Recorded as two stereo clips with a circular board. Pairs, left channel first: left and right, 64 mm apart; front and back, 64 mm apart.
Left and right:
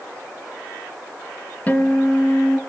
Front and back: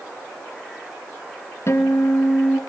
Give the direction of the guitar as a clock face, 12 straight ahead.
11 o'clock.